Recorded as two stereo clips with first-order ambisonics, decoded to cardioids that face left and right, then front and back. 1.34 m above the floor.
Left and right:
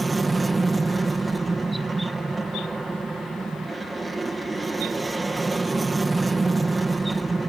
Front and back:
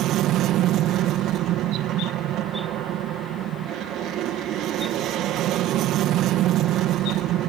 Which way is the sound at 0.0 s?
170° right.